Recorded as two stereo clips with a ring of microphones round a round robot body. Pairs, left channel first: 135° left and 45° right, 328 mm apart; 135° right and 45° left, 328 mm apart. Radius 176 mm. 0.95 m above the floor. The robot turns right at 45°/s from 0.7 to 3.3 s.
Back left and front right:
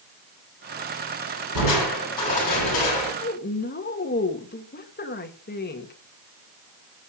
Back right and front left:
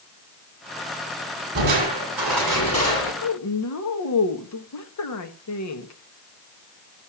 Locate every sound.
1.6 s crushing: 100° left, 9.5 m; by 3.1 s 170° left, 9.5 m
3.2 s a woman speaking: 170° right, 1.7 m; by 5.9 s 165° right, 1.7 m